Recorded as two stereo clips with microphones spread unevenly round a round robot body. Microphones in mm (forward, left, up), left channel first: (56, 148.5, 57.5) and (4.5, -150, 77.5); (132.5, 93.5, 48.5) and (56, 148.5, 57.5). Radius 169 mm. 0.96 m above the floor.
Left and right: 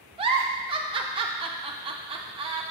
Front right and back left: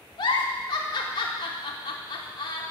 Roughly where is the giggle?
Ahead right.